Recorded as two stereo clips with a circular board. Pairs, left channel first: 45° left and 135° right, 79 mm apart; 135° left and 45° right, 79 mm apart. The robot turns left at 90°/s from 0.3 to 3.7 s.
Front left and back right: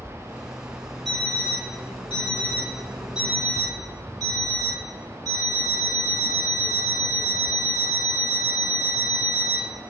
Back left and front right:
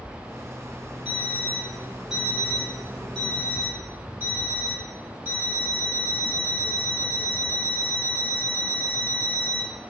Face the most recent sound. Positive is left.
turn(degrees=-105)